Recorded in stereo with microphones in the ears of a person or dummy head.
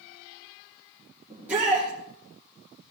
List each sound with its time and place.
1.3 s a shout: 10° right (ahead or behind), 2.5 m